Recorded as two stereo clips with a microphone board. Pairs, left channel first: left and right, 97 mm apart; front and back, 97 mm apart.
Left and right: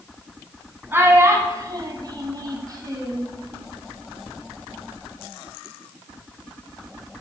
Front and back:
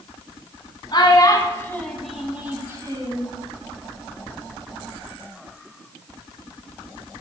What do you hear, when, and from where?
0.9 s a child speaking: 30° right, 1.8 m; by 3.3 s 145° right, 1.9 m